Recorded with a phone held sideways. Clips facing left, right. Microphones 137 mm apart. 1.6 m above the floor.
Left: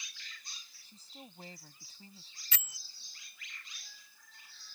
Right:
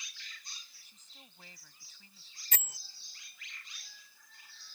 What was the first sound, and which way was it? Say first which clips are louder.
A woman speaking: left 9 dB; 35° left (ahead or behind).